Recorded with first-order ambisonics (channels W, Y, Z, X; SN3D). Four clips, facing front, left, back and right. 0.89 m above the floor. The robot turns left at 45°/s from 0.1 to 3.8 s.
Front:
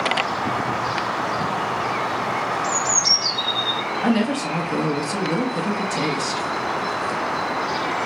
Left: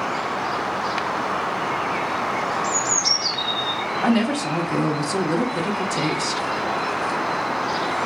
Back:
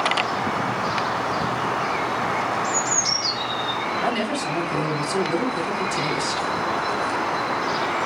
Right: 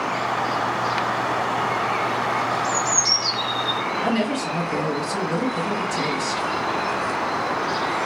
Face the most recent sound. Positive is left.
turn(degrees=45)